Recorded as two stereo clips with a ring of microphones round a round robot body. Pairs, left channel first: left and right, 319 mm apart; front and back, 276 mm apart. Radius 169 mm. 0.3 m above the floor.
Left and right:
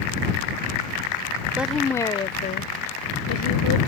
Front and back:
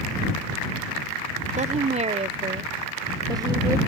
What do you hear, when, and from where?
1.6 s a woman speaking: 170° right; by 3.8 s 105° left